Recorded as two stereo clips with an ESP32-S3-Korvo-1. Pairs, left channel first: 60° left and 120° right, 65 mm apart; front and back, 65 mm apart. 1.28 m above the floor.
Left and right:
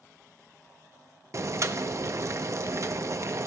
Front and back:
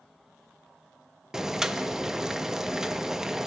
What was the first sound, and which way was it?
Boiling, 100° right.